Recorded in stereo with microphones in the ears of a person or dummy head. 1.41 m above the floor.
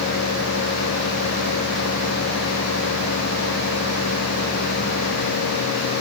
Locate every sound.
Only background noise.